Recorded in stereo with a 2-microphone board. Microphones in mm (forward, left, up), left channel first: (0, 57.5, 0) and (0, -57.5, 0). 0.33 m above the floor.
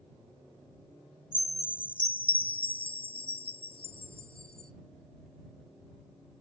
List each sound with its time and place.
1.3 s a chime: 50° left (ahead or behind)